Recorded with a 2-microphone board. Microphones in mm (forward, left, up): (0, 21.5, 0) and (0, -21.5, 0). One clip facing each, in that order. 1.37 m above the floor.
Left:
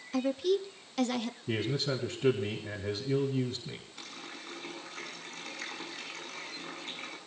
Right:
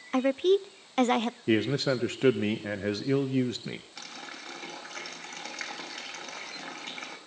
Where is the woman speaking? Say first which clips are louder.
Right 5 dB; 40° right (ahead or behind), 0.6 m.